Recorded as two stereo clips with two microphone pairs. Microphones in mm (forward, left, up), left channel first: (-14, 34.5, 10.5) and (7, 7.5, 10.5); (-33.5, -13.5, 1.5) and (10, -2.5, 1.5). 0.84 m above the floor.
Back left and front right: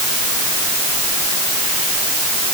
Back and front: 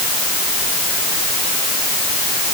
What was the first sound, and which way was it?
Only background noise.